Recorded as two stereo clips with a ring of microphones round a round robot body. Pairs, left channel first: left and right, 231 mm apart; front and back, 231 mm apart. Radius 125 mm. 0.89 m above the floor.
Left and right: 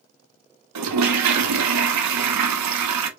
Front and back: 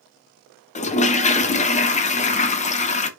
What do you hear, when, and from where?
0.8 s a toilet flushing: 60° right, 0.6 m